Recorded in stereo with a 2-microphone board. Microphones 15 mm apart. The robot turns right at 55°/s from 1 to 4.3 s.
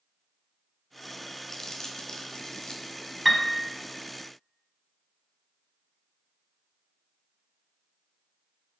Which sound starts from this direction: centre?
A piano, at 3.2 s.